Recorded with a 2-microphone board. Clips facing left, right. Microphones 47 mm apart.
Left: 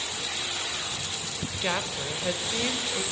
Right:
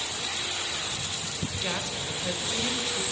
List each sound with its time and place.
1.6 s a woman speaking: 25° left (ahead or behind), 1.7 m